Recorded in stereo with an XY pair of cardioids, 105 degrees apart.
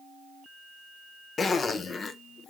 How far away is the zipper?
About 0.5 m.